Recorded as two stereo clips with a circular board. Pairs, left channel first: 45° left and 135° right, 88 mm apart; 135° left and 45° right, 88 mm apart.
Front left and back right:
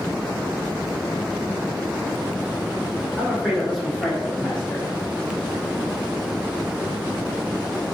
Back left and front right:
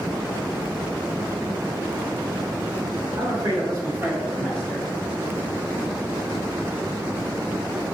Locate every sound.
3.2 s a man speaking: 55° right, 1.6 m; by 4.9 s 100° left, 1.2 m